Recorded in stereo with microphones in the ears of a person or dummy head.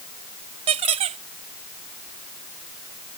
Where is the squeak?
35° right (ahead or behind).